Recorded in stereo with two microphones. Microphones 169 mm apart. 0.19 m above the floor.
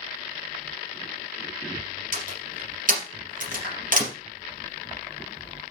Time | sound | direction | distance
2.1 | a door slam | 55° right (ahead or behind) | 3.5 m
3.6 | a clap | 60° right (ahead or behind) | 4 m